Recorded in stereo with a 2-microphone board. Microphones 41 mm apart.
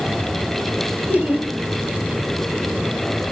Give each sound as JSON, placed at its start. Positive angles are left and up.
{"t": 1.1, "sound": "laughter", "side_deg": -35, "distance_m": 5.5}